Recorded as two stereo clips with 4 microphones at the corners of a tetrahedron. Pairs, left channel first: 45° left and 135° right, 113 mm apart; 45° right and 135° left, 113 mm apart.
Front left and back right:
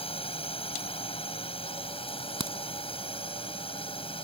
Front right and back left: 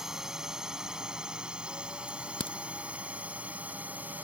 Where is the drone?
50° left; by 4.2 s 60° left.